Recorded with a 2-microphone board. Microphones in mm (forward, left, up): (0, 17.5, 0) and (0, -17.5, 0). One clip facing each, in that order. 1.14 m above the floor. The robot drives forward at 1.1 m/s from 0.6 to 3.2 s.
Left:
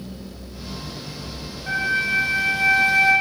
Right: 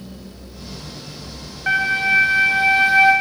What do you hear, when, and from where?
1.7 s a flute: 60° right (ahead or behind), 1.3 m; by 3.1 s 25° right (ahead or behind), 2.5 m